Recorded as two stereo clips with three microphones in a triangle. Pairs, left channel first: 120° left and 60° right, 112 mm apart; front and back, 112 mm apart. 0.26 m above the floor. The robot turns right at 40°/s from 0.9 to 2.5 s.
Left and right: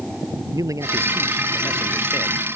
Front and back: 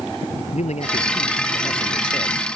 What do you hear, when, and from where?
0.5 s a man speaking: straight ahead; by 2.5 s 65° left